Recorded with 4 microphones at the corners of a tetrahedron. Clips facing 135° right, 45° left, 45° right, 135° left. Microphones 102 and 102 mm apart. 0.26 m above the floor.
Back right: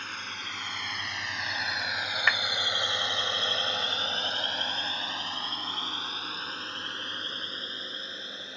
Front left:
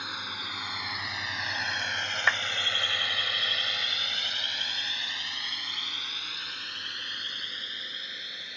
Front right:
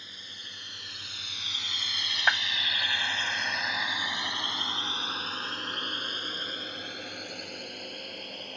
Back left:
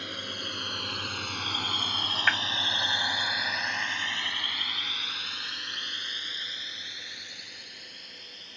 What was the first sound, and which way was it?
A drone, 125° left.